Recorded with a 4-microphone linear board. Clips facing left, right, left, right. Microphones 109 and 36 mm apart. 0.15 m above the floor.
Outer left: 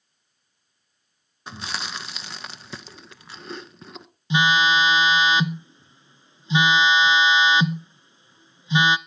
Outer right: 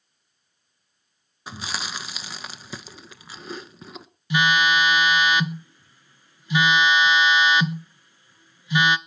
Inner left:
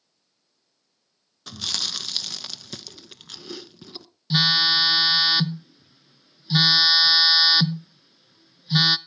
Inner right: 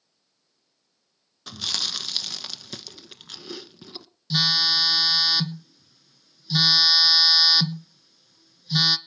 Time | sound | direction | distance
1.5 | chewing | centre (ahead or behind) | 0.7 m
4.3 | a phone buzzing | 25° left (ahead or behind) | 0.6 m